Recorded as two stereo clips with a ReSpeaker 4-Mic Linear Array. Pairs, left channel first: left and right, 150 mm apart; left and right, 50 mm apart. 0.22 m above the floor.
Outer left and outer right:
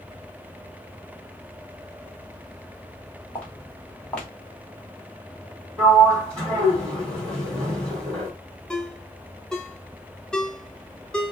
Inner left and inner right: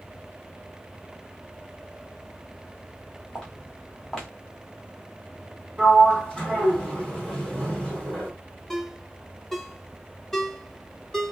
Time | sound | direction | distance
3.4 | footsteps | 10° left (ahead or behind) | 1.8 m
5.8 | a sliding door | 10° left (ahead or behind) | 3 m
8.7 | a ringtone | 5° left (ahead or behind) | 0.7 m